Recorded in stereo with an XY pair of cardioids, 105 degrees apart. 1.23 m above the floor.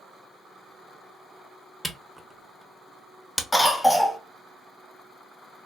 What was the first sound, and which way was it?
A camera shutter, straight ahead.